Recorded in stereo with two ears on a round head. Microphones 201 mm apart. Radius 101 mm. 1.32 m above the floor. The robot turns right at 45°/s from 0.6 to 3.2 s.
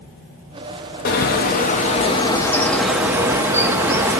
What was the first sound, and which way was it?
A bird, 100° left.